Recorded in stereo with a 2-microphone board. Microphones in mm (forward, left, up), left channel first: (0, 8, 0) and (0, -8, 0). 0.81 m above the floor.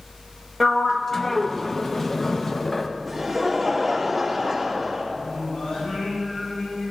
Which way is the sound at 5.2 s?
70° left (ahead or behind).